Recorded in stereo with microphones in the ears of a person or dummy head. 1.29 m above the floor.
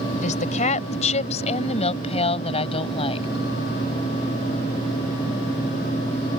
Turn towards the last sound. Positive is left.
turn(degrees=25)  # may be behind; listen again after turning